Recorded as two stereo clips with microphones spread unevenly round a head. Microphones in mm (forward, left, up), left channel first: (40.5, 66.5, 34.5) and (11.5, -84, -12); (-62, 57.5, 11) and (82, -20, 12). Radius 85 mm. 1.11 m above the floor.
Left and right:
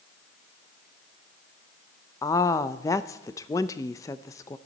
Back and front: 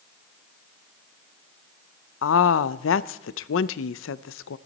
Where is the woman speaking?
150° left, 0.5 m.